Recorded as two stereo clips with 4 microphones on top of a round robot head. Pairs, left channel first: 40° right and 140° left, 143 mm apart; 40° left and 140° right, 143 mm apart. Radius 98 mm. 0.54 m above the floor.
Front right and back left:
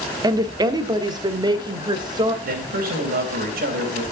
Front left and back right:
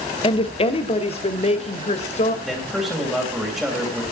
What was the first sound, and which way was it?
A woman speaking, 85° left.